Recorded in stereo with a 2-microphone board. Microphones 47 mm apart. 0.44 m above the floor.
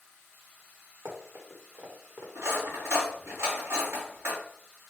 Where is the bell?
No bell in this recording.